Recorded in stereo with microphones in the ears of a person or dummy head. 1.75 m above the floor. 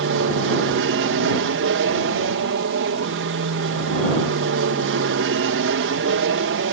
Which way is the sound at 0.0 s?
60° right (ahead or behind).